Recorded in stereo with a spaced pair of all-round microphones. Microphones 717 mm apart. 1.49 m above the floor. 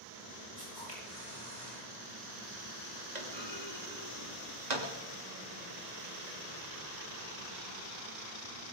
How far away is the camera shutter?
About 8.5 m.